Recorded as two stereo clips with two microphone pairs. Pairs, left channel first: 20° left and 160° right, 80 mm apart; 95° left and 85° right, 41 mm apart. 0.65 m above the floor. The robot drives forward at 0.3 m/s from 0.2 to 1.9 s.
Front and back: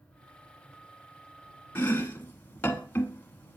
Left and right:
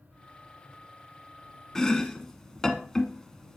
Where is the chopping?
35° left, 0.8 m; by 3.6 s 40° left, 0.8 m.